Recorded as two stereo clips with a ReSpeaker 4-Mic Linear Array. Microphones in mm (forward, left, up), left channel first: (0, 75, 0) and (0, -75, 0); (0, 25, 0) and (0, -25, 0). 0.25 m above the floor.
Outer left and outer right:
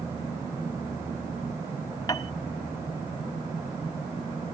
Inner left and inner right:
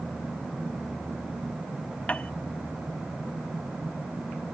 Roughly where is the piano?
Left.